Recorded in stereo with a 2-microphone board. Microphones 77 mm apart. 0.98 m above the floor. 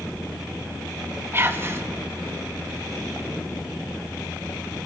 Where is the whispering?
30° right (ahead or behind), 1.2 m.